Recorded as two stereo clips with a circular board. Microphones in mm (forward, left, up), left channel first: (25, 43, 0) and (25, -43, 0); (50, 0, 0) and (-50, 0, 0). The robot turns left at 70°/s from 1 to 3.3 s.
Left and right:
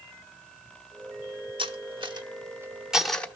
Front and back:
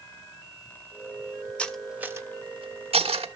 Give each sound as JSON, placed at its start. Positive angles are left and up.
{"t": 1.6, "sound": "cutlery clinking", "azimuth_deg": -80, "distance_m": 1.0}